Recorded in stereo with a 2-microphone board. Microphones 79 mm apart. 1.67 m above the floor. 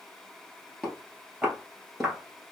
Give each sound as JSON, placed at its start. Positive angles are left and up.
{"t": 0.8, "sound": "footsteps", "side_deg": 0, "distance_m": 1.7}